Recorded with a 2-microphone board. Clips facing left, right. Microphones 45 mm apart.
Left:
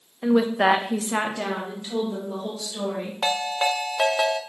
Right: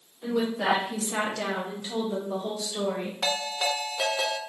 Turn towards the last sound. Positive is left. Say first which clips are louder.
# left 5 dB
turn(degrees=35)  # may be behind; listen again after turning